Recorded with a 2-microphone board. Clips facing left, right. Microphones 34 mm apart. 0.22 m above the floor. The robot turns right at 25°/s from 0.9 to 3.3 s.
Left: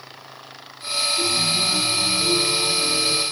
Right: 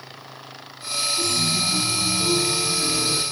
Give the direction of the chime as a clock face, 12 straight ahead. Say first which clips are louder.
Left 1 dB; 7 o'clock.